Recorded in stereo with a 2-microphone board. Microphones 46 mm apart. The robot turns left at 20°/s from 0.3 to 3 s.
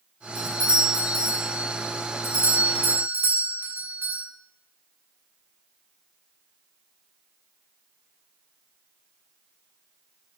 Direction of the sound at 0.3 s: 60° right.